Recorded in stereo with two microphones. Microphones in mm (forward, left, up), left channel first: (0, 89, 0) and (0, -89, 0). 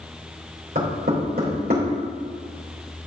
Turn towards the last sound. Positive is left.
turn(degrees=-60)  # may be behind; listen again after turning